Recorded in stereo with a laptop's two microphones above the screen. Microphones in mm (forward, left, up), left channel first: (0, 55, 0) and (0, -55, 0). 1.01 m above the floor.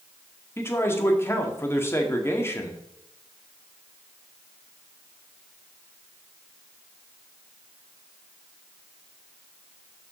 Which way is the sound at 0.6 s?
20° left (ahead or behind).